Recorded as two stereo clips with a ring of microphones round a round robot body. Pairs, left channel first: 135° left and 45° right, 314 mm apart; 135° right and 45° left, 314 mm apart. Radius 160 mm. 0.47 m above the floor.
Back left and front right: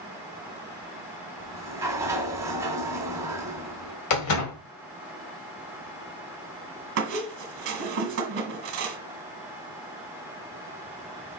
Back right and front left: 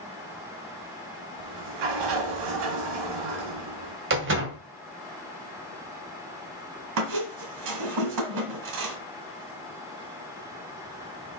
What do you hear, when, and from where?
1.4 s a sliding door: 35° left, 1.5 m
4.1 s a door slam: 100° left, 1.8 m
7.0 s a squeak: 10° left, 1.4 m